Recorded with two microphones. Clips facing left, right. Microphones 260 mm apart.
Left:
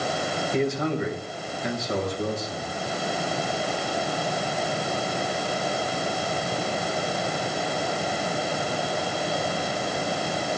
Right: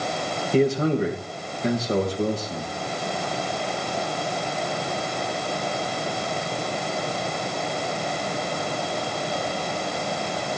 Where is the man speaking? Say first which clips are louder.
Right 6 dB; 35° right (ahead or behind), 2.5 m.